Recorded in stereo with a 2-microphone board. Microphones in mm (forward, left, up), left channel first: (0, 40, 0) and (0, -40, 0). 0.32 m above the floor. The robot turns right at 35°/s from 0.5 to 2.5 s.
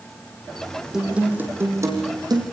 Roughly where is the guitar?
Behind.